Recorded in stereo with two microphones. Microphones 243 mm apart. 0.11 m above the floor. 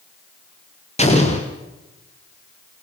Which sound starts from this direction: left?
An explosion, at 1.0 s.